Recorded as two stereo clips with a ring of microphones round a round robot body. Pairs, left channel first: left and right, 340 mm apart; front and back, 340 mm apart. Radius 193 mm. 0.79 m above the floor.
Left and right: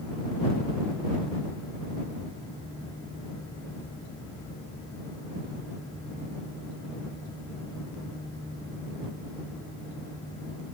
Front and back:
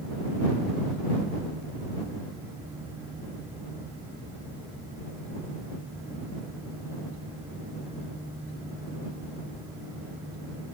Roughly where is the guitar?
I don't hear a guitar.